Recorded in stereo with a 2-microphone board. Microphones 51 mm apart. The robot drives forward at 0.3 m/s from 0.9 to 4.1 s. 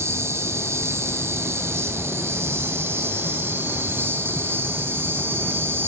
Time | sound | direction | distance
0.0 | an insect | 60° right (ahead or behind) | 2.5 m